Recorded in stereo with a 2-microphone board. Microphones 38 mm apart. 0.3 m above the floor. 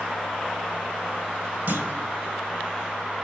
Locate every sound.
1.7 s a clunk: 55° right (ahead or behind), 0.9 m